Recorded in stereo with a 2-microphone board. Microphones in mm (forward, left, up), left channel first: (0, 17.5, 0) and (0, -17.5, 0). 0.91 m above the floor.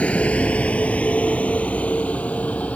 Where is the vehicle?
40° left (ahead or behind); by 2.8 s 45° left (ahead or behind).